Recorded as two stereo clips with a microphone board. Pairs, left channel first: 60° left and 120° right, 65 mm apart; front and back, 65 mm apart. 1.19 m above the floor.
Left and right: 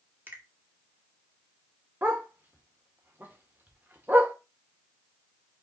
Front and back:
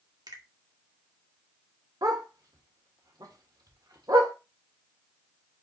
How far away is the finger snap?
About 1.8 m.